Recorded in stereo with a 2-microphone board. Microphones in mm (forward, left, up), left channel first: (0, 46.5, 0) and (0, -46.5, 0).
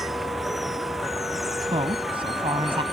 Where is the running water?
Centre (ahead or behind).